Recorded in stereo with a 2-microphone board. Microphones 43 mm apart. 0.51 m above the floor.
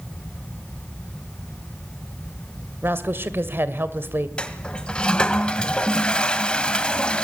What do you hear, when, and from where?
2.8 s a woman speaking: 60° right (ahead or behind), 2.0 m
4.4 s a toilet flushing: 25° left (ahead or behind), 1.6 m